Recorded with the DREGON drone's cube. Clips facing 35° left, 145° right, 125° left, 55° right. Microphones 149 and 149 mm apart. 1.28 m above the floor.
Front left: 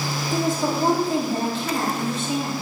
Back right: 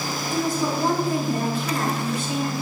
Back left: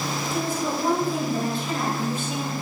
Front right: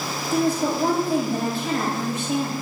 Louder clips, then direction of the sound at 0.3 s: Front left 1 dB, front right 7 dB; 30° right.